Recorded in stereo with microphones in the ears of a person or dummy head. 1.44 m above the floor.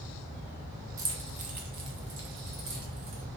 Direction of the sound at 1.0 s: 15° right (ahead or behind).